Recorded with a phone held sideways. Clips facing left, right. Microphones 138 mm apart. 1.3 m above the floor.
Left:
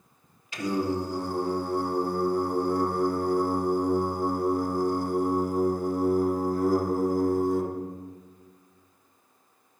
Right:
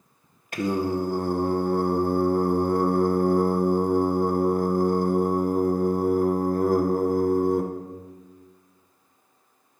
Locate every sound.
0.5 s singing: 55° right (ahead or behind), 0.7 m